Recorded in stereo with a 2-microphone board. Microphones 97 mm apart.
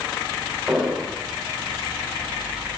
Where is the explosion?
10° right (ahead or behind), 7 m.